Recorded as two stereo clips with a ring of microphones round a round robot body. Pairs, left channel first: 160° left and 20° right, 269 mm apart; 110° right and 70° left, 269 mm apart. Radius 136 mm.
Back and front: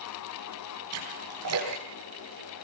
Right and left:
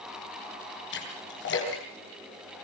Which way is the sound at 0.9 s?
60° right.